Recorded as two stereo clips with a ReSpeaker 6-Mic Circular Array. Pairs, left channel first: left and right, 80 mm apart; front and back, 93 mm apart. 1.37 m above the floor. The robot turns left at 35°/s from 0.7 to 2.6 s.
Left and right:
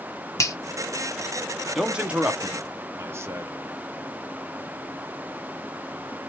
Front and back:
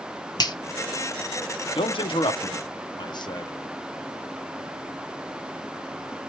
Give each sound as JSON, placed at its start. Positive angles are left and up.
{"t": 0.4, "sound": "a finger snap", "azimuth_deg": 40, "distance_m": 0.9}
{"t": 1.8, "sound": "a man speaking", "azimuth_deg": -5, "distance_m": 0.8}